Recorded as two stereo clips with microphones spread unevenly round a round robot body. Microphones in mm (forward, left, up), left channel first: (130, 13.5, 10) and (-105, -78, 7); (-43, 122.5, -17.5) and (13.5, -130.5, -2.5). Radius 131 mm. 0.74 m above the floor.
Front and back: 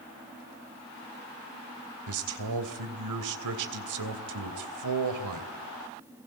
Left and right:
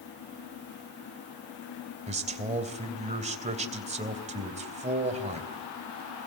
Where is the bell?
I don't hear a bell.